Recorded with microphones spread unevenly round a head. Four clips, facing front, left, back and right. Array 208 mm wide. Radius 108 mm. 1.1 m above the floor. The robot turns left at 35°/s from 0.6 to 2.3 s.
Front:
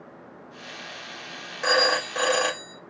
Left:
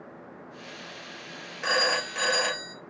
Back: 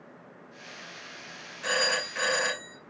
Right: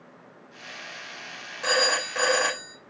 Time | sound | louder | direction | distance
1.6 | a phone ringing | right 2 dB, front 7 dB | 5° right | 2.0 m